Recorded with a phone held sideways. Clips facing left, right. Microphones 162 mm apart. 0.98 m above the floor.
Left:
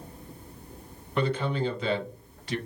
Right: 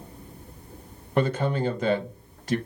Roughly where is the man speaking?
Right.